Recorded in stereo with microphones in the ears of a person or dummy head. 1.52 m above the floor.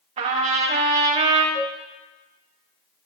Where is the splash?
I don't hear a splash.